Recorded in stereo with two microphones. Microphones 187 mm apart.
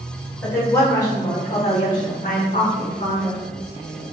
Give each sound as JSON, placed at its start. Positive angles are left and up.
{"t": 0.4, "sound": "a woman speaking", "side_deg": 10, "distance_m": 1.4}